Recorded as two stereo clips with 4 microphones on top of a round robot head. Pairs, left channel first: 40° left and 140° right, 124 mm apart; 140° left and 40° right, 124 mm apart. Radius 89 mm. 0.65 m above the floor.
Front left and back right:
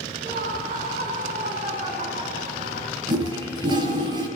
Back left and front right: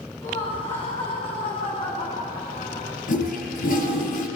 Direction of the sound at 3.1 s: 160° left.